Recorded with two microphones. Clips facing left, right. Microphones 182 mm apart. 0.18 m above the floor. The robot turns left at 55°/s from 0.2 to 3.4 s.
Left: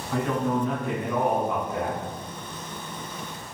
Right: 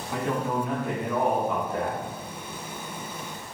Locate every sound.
0.1 s a man speaking: 20° right (ahead or behind), 1.1 m; by 2.0 s 20° left (ahead or behind), 1.1 m